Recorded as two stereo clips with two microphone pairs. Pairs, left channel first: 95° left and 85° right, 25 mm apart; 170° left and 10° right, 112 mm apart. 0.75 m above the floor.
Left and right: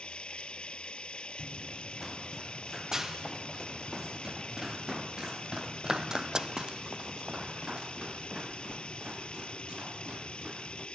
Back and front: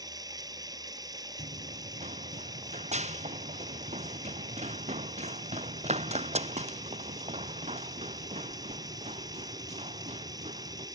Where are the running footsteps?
10° right; by 10.9 s 30° right.